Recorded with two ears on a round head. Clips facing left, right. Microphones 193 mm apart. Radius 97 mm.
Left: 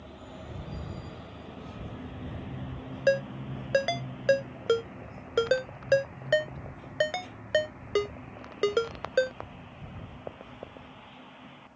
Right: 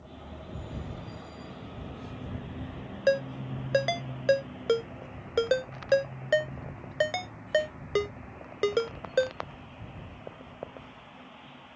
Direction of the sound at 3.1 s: 5° left (ahead or behind).